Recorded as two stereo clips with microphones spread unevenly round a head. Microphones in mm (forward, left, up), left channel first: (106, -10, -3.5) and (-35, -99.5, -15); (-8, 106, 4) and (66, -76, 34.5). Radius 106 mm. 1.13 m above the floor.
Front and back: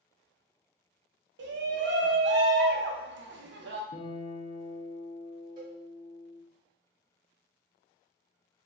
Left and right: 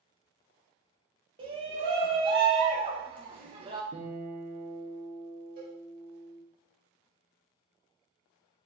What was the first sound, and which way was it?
A shout, 135° right.